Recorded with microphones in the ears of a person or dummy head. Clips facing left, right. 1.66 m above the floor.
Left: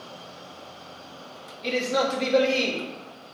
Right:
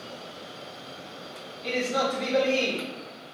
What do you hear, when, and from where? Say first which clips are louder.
1.6 s a man speaking: left 2 dB; 35° left (ahead or behind), 0.8 m